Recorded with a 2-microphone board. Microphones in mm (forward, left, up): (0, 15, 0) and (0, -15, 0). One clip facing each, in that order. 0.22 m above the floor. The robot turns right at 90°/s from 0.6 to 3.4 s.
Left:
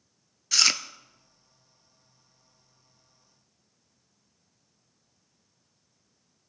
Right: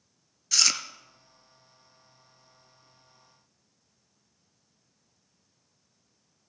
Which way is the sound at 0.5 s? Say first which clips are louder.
Left 2 dB; 15° left (ahead or behind).